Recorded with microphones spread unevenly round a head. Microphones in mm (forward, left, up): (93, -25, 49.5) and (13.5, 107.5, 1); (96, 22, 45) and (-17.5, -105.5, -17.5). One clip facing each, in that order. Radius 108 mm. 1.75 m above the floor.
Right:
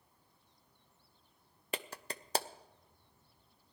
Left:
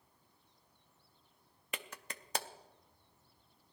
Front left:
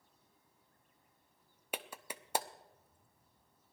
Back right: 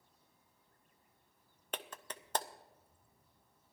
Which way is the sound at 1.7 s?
20° right.